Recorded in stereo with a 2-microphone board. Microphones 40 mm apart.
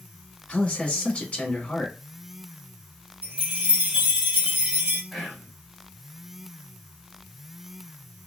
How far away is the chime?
About 1.0 m.